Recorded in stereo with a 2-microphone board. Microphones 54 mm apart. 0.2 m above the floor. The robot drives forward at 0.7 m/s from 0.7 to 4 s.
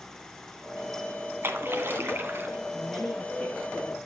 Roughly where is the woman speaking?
Centre.